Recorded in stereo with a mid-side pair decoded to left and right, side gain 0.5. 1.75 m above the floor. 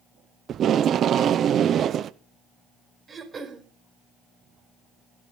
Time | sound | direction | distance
0.5 | tape being pulled | 55° right | 1.0 m
3.1 | throat clearing | 40° right | 4.5 m